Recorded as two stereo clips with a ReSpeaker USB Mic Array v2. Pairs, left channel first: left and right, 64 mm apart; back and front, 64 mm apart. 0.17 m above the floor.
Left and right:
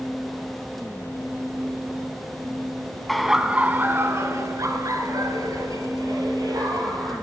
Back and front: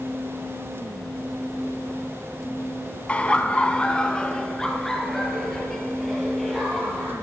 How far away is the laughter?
About 1.0 m.